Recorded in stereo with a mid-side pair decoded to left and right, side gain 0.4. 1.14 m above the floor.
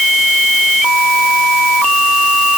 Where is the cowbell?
I don't hear a cowbell.